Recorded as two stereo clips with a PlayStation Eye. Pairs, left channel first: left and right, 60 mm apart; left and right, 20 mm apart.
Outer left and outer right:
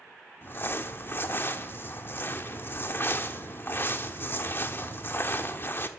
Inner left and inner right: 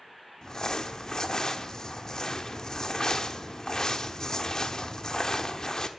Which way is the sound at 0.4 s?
40° left (ahead or behind).